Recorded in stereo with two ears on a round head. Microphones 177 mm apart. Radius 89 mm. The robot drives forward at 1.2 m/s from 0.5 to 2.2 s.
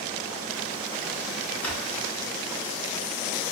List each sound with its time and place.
1.6 s a drawer: 5° left (ahead or behind), 4 m